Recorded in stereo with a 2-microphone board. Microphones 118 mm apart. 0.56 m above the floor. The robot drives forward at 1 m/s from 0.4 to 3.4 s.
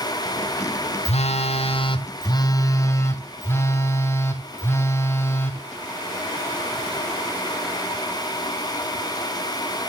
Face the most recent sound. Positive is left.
turn(degrees=20)  # may be behind; listen again after turning